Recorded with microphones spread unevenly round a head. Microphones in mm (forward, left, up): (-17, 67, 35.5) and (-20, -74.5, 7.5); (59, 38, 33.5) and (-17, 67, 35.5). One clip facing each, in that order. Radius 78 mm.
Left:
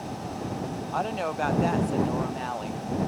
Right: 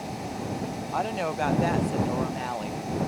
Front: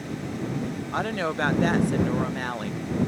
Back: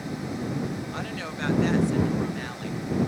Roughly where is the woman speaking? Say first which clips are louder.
Right 1 dB, front 7 dB; ahead.